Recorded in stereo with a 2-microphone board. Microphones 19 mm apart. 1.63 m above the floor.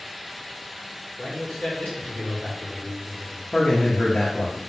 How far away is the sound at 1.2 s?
About 1.6 m.